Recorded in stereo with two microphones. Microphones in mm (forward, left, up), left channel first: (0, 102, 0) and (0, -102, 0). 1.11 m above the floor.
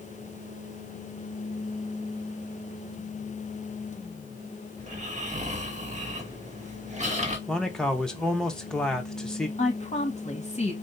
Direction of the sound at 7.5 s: 5° left (ahead or behind).